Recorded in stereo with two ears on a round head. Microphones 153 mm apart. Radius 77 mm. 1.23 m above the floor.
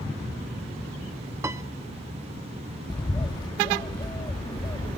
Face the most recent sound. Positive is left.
turn(degrees=25)  # may be behind; listen again after turning